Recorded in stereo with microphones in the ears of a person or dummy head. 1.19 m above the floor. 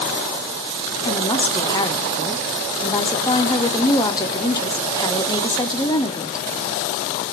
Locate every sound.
1.1 s a woman speaking: 20° left (ahead or behind), 0.5 m